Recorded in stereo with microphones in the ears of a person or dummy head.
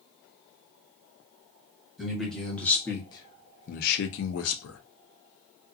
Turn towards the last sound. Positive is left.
turn(degrees=75)  # may be behind; listen again after turning